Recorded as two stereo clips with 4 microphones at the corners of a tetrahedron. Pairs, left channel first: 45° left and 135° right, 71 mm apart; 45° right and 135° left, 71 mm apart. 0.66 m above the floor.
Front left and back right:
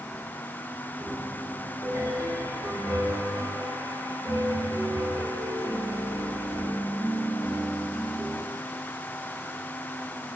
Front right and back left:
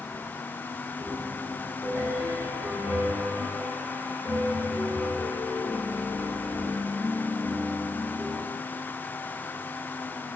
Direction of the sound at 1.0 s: Straight behind.